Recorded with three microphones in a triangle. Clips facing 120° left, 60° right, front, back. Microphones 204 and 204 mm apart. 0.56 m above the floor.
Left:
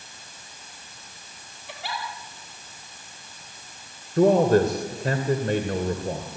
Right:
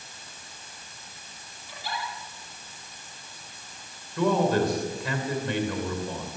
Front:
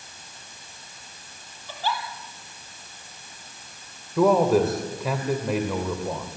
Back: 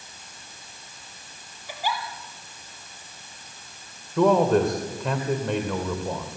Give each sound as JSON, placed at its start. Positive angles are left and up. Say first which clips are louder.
{"t": 1.7, "sound": "a giggle", "louder": "left 1 dB, even", "azimuth_deg": 105, "distance_m": 4.5}
{"t": 4.2, "sound": "a man speaking", "louder": "left 6 dB, even", "azimuth_deg": 85, "distance_m": 2.5}